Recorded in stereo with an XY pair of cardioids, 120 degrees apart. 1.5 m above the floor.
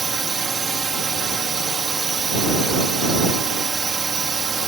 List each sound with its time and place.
0.0 s a drone: 30° right